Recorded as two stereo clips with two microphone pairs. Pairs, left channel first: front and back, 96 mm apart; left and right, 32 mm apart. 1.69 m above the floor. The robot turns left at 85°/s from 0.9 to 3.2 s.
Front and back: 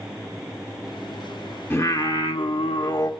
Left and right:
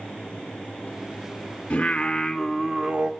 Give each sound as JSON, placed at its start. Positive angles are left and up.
{"t": 1.7, "sound": "singing", "azimuth_deg": 65, "distance_m": 0.9}